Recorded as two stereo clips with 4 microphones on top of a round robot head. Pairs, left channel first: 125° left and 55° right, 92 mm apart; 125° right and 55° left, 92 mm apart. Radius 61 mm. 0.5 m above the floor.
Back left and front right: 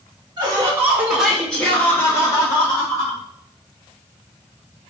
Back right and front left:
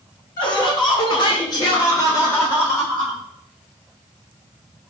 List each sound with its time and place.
0.4 s laughter: 95° right, 1.7 m; by 3.2 s 165° left, 3 m